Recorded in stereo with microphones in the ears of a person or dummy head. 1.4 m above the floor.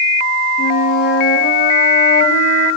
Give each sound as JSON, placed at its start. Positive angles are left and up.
{"t": 0.6, "sound": "a flute", "side_deg": 45, "distance_m": 3.5}